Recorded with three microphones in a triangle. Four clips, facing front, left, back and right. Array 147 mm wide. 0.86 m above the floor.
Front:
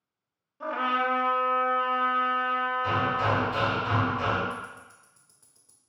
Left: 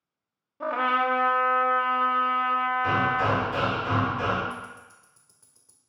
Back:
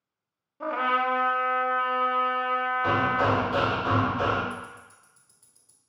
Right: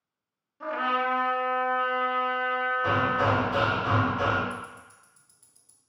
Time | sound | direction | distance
0.6 | a trumpet | 115° left | 0.6 m
2.8 | hammering | 140° right | 1.5 m
4.5 | ticking | 55° left | 0.8 m